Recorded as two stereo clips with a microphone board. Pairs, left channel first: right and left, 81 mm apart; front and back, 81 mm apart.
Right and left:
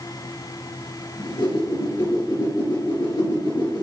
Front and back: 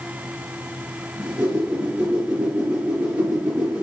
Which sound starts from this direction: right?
A whoosh, at 1.2 s.